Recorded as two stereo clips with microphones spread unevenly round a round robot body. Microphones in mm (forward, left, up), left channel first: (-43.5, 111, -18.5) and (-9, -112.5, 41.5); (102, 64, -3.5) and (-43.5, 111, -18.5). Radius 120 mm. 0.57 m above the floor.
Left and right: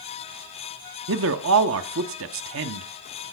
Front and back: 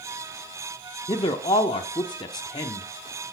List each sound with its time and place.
1.1 s a man speaking: 80° right, 1.0 m